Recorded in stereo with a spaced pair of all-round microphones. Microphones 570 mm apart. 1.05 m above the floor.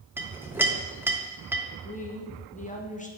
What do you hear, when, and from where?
0.2 s a clink: 5° right (ahead or behind), 0.6 m
1.8 s a woman speaking: 15° left (ahead or behind), 0.7 m